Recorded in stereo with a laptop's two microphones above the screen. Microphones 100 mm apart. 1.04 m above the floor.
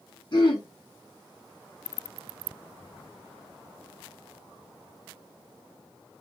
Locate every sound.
0.3 s throat clearing: 50° left (ahead or behind), 1.6 m